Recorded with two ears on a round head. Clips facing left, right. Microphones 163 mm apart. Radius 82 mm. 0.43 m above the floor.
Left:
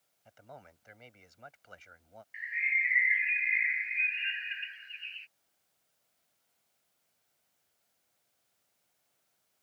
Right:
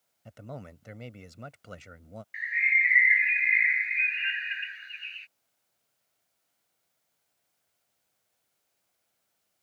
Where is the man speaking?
65° right (ahead or behind).